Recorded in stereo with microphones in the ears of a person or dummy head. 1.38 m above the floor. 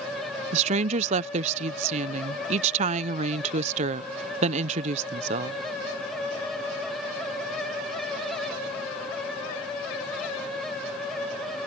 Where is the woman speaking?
40° right (ahead or behind).